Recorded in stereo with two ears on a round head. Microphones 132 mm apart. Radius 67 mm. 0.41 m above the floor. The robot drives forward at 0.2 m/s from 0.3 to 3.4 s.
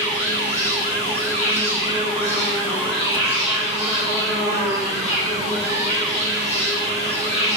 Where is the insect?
60° left (ahead or behind), 1.5 m; by 7.6 s 45° left (ahead or behind), 1.9 m.